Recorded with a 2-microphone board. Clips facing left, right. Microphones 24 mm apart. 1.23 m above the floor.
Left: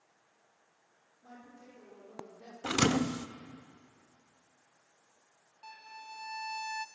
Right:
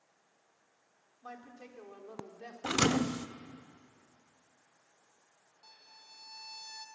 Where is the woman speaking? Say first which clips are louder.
Right 5 dB; 80° right, 4.5 m.